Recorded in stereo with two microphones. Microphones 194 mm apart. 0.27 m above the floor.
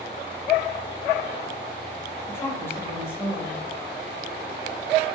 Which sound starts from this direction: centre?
A woman speaking, at 2.3 s.